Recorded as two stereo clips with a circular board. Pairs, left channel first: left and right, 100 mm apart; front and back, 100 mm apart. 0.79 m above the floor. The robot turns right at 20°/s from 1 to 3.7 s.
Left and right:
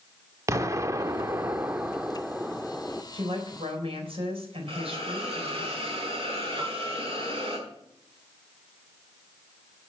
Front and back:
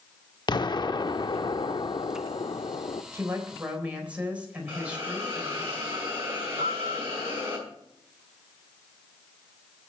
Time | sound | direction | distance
0.5 | an explosion | 35° right | 0.5 m
3.1 | a woman speaking | 115° right | 4 m
4.7 | a hiss | 115° right | 5.5 m
6.6 | a piano | 155° right | 3.5 m